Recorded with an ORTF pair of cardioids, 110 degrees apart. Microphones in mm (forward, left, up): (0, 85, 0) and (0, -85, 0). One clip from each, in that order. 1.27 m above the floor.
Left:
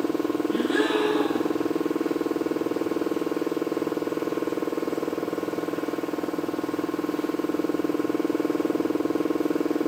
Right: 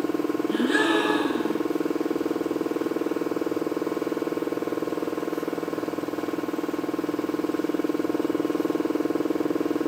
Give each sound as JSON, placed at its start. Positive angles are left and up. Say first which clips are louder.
{"t": 0.5, "sound": "a gasp", "louder": "right 3 dB", "azimuth_deg": -55, "distance_m": 1.5}